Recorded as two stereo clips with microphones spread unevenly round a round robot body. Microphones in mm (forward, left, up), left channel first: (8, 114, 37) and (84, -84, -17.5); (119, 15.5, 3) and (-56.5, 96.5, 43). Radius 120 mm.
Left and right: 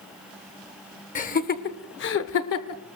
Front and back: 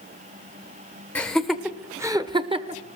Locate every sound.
1.1 s laughter: 55° left, 1.7 m; by 2.8 s 95° left, 1.6 m